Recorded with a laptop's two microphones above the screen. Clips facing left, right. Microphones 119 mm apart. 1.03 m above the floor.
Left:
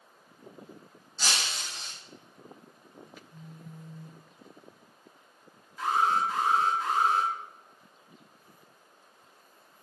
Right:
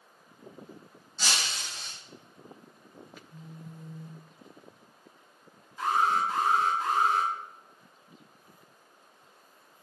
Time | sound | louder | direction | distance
1.2 | breaking glass | even | 15° left (ahead or behind) | 1.0 m
3.3 | a phone buzzing | right 1 dB | 60° right (ahead or behind) | 0.8 m
5.8 | an alarm | even | 25° right (ahead or behind) | 0.9 m